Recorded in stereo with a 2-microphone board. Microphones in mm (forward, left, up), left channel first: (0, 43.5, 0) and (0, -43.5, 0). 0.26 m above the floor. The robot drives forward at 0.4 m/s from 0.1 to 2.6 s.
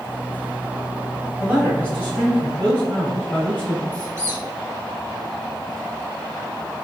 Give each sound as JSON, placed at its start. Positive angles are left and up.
{"t": 1.4, "sound": "a man speaking", "side_deg": 20, "distance_m": 1.4}
{"t": 3.9, "sound": "a squeak", "side_deg": -30, "distance_m": 1.6}